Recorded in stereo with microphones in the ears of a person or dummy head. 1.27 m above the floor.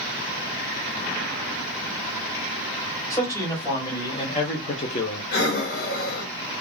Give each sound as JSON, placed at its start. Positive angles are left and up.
{"t": 3.1, "sound": "a man speaking", "side_deg": 15, "distance_m": 1.3}
{"t": 5.3, "sound": "breathing", "side_deg": 60, "distance_m": 1.5}